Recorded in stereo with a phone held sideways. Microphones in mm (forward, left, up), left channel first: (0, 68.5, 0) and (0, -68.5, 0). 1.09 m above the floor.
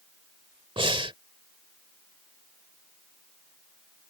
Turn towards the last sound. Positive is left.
turn(degrees=-40)  # may be behind; listen again after turning